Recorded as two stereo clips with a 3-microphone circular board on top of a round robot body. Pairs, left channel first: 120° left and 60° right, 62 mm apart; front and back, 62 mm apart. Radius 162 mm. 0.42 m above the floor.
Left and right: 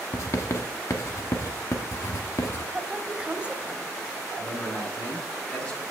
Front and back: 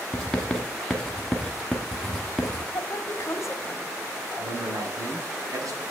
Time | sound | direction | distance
0.1 | writing | 85° left | 1.0 m
2.7 | a woman speaking | 5° left | 1.5 m
4.4 | a man speaking | 165° right | 4 m